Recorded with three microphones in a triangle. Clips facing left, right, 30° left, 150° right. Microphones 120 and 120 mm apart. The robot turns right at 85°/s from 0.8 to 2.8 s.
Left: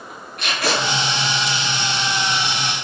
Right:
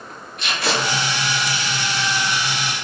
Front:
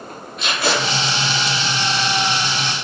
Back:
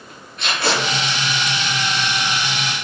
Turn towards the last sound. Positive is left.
turn(degrees=-75)